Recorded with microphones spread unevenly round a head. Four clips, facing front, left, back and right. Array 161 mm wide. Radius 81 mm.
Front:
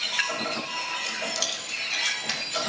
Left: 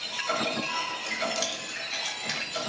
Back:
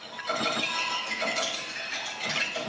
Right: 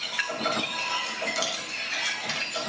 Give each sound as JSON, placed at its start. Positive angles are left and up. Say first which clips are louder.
{"t": 1.1, "sound": "keys jangling", "louder": "even, back 2 dB", "azimuth_deg": -5, "distance_m": 3.0}